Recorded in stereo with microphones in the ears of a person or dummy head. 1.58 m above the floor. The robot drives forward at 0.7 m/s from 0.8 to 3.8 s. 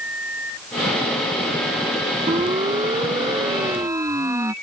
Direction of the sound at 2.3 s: 25° right (ahead or behind).